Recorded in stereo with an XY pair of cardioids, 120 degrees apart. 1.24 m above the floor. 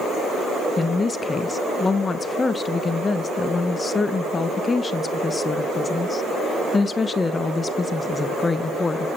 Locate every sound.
0.8 s a woman speaking: 25° left, 0.6 m